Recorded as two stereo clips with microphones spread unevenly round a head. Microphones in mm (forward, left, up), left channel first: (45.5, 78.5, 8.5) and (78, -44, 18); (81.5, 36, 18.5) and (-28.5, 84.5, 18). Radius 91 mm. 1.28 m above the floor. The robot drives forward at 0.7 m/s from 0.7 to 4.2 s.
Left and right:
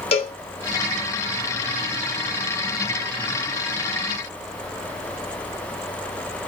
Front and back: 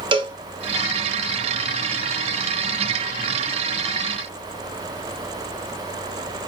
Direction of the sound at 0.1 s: 120° left.